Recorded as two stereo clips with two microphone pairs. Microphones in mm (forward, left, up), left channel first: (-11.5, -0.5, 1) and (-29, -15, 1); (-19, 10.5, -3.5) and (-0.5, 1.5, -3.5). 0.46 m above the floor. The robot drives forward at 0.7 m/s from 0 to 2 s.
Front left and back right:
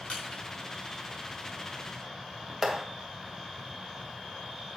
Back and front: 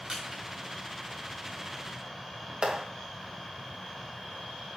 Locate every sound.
0.1 s crushing: 20° left, 4 m; by 0.4 s 25° left, 4 m
2.6 s a clap: 60° right, 2 m